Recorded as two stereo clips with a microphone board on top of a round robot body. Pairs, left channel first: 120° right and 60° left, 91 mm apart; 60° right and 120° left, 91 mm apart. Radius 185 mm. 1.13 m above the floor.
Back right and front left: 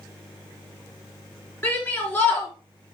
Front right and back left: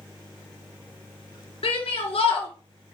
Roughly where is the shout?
Ahead right.